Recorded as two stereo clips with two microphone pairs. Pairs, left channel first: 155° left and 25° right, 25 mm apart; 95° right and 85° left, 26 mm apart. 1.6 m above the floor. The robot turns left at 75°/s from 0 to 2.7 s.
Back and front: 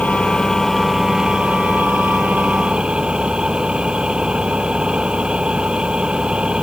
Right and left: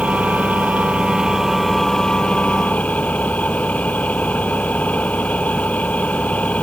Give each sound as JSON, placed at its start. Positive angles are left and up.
{"t": 0.0, "sound": "an engine running", "azimuth_deg": 125}